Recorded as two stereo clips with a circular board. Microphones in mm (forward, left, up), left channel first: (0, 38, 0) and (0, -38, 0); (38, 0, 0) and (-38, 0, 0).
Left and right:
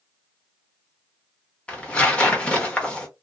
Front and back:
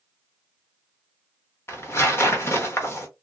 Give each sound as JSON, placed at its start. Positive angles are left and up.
{"t": 1.7, "sound": "tearing paper", "azimuth_deg": 25, "distance_m": 1.0}